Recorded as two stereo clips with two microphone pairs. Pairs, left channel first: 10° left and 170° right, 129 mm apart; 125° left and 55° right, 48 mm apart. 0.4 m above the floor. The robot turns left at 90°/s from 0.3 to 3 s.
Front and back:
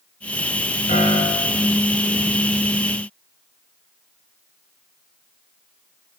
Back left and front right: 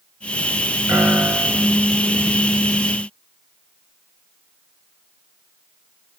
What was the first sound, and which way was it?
A piano, 20° right.